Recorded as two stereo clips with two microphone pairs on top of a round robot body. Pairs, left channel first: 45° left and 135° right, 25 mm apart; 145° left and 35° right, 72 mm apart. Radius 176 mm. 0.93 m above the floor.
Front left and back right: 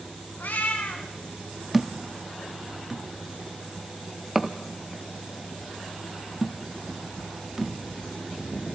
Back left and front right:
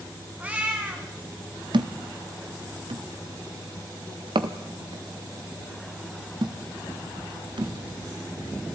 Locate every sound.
0.4 s a cat meowing: 40° left, 2.0 m
1.7 s a thud: 55° right, 0.9 m